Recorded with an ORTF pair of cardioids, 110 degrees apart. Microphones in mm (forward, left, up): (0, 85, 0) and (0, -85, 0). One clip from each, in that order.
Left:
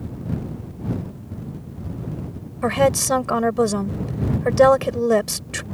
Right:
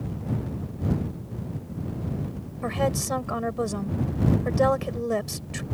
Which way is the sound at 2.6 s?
50° left.